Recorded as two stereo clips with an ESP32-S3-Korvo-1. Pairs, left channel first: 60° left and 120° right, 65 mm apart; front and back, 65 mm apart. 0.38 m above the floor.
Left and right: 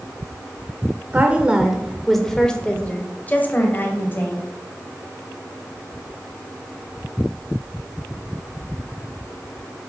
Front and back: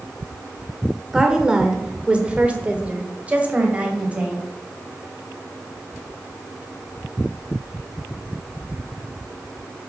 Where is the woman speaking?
110° right, 1.0 m; by 4.4 s 110° left, 2 m.